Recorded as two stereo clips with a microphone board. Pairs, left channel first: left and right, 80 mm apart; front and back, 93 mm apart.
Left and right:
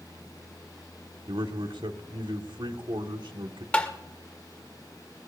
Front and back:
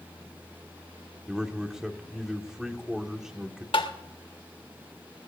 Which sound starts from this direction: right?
A man speaking, at 1.3 s.